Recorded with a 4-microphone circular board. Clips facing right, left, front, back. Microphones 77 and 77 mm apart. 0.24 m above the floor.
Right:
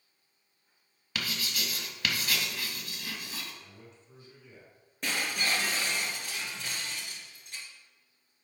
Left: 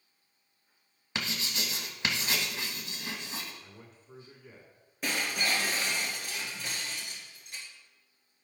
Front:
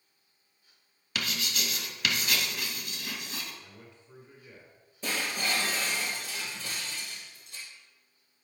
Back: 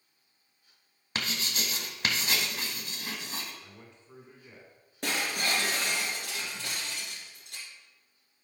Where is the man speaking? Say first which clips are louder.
Even, even; 120° left, 2.5 m.